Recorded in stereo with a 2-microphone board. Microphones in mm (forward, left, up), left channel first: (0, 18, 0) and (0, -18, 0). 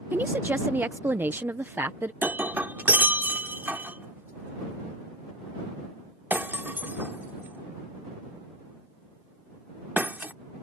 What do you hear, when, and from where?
0.1 s a woman speaking: 65° right (ahead or behind)
2.2 s breaking glass: 65° right (ahead or behind)